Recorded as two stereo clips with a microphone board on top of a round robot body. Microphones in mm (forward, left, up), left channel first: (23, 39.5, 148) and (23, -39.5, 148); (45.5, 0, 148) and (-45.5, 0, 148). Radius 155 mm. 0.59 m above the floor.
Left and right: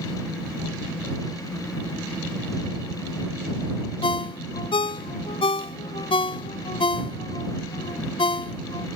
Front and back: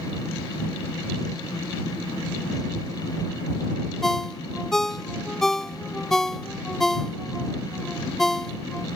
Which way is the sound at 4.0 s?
85° left.